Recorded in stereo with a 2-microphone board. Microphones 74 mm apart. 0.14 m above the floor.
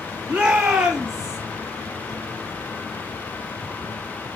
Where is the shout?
15° right (ahead or behind), 2 m; by 1.4 s 5° right (ahead or behind), 3 m.